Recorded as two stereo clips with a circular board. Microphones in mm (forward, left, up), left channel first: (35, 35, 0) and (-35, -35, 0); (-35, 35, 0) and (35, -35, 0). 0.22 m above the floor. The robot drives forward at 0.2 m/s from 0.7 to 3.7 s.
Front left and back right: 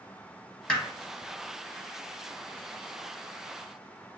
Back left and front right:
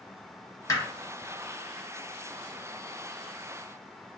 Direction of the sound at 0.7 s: 120° left.